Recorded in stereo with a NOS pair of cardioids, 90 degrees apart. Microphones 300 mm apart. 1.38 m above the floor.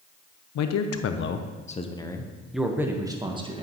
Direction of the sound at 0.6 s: 65° left.